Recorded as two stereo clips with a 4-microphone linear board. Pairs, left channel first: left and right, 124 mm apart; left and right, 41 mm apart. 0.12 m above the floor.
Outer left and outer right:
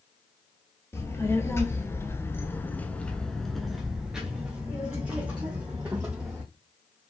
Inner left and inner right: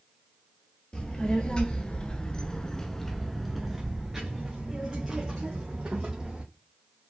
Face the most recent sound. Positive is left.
turn(degrees=-15)  # may be behind; listen again after turning